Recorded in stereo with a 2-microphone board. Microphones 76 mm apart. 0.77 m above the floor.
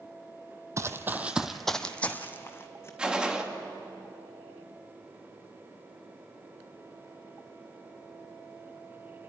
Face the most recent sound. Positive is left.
turn(degrees=-10)  # may be behind; listen again after turning